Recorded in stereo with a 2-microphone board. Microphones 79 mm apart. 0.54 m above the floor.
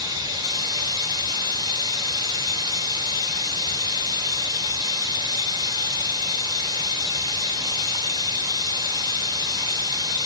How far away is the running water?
About 1.7 m.